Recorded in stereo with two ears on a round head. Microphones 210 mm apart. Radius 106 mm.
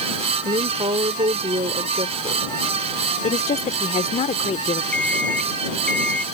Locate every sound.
0.5 s a woman speaking: 25° right (ahead or behind)
3.2 s a woman speaking: 30° left (ahead or behind)
4.9 s an alarm clock: 5° left (ahead or behind)